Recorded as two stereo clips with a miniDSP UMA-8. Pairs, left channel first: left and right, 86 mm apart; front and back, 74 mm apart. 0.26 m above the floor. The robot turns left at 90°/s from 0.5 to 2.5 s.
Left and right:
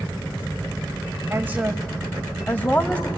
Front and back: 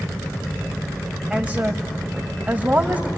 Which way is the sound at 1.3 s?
115° right.